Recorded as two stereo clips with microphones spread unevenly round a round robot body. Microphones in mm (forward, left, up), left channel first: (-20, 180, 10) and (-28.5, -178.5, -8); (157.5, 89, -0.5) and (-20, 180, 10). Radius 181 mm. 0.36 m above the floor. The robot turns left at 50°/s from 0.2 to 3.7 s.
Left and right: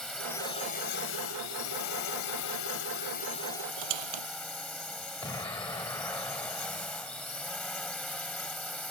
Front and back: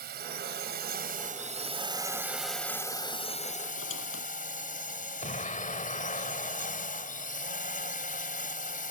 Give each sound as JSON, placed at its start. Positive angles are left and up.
{"t": 0.0, "sound": "a drone", "azimuth_deg": 175}
{"t": 3.8, "sound": "a squeak", "azimuth_deg": -80}
{"t": 5.2, "sound": "an explosion", "azimuth_deg": 10}